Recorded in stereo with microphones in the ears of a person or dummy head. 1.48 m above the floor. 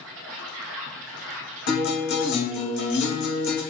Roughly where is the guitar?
Left.